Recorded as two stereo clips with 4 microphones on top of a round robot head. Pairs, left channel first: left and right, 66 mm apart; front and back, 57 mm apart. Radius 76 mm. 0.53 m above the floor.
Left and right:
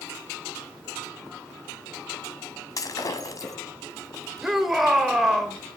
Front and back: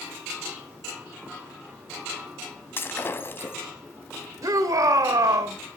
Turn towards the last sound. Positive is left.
turn(degrees=180)